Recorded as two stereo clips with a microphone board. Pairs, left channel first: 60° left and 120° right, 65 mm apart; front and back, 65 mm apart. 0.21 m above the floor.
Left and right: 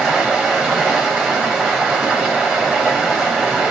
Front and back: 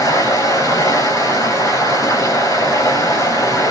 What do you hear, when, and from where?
0.0 s running water: 25° right, 5.5 m